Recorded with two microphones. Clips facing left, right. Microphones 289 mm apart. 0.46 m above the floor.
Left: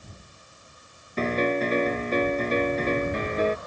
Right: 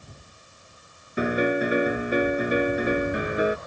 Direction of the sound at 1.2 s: 10° right (ahead or behind).